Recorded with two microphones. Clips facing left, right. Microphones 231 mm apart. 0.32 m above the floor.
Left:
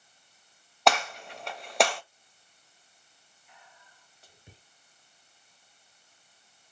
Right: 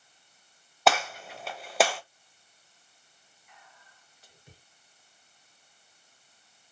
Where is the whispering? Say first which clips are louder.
Even; 30° left (ahead or behind), 1.3 m.